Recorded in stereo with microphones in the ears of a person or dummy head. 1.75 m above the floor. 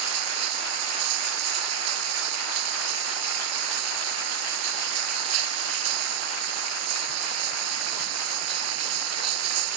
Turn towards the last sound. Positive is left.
turn(degrees=-80)